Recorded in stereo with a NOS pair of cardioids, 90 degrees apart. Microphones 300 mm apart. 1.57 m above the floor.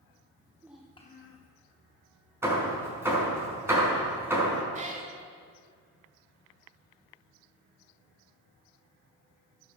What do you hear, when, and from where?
0.4 s a child speaking: 20° right, 1.5 m; by 1.5 s 65° left, 1.2 m
2.4 s hammering: 10° right, 4.5 m
4.7 s a cat meowing: 25° right, 2.5 m